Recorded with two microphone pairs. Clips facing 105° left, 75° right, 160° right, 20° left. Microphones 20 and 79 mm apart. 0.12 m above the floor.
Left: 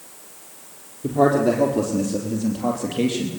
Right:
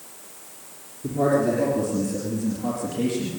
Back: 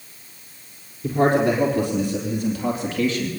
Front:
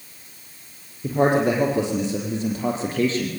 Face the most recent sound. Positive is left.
turn(degrees=70)